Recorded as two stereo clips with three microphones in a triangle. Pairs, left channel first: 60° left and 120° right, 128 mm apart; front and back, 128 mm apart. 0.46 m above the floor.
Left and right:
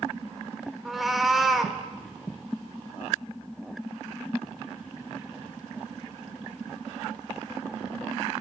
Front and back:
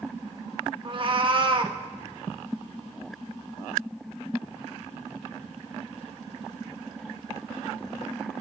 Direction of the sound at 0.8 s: 150° left.